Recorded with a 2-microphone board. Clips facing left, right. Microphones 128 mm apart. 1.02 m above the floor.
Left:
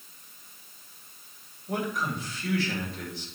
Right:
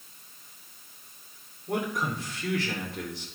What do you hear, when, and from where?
1.7 s a man speaking: 75° right (ahead or behind), 4 m